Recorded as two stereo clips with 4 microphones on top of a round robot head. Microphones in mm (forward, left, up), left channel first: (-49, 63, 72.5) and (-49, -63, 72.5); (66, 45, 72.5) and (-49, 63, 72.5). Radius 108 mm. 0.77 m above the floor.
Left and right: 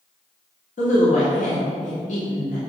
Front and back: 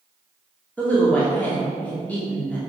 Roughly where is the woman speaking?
Left.